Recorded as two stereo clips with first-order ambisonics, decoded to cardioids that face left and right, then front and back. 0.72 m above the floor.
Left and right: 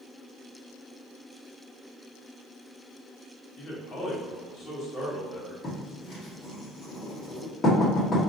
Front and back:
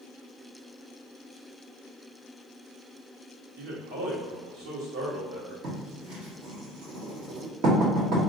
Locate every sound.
3.6 s a man speaking: 165° left, 1.6 m
5.6 s writing: 160° left, 1.6 m